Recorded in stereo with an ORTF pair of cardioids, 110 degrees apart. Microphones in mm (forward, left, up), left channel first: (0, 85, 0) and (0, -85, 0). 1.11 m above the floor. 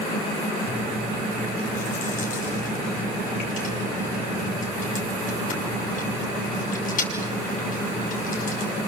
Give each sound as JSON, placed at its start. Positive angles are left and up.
{"t": 0.7, "sound": "chewing", "azimuth_deg": 50, "distance_m": 6.0}